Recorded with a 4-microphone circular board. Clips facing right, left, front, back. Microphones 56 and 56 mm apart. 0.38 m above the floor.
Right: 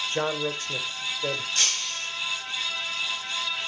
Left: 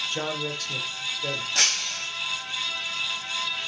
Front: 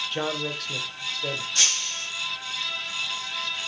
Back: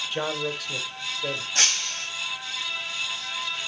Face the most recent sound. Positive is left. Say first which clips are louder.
# left 3 dB, back 2 dB
turn(degrees=125)